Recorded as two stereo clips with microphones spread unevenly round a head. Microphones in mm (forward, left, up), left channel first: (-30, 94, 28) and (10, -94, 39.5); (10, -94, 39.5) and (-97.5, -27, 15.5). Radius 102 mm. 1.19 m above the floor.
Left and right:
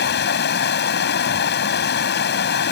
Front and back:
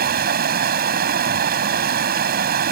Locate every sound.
0.0 s running water: 145° left